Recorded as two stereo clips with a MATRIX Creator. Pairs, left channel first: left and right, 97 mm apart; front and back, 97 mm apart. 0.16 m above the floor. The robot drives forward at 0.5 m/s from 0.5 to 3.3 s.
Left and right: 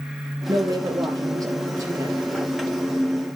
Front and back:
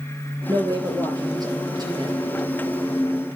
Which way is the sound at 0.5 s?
130° right.